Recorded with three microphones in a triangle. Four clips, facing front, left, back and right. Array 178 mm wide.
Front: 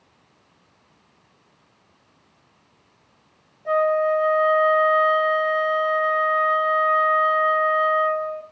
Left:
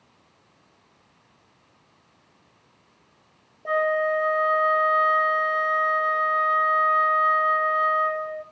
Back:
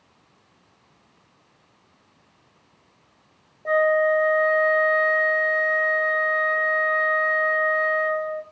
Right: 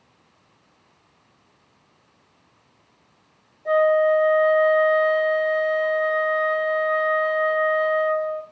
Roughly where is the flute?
Behind left.